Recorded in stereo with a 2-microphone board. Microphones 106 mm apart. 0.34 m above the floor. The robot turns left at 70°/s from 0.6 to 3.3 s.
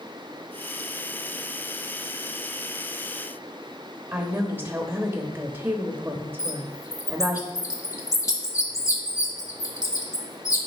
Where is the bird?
30° left (ahead or behind), 1.2 m.